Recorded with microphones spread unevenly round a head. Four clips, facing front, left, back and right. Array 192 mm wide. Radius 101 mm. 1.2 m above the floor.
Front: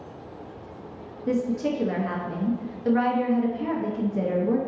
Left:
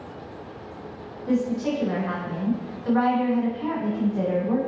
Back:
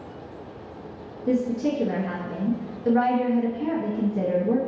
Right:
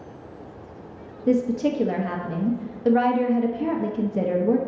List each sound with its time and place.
1.3 s a woman speaking: 100° right, 1.1 m